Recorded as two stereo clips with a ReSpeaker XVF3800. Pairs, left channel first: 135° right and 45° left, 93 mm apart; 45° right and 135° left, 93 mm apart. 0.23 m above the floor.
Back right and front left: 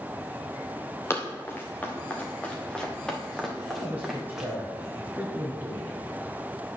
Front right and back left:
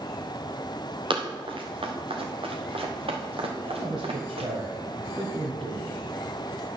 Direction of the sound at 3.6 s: 115° left.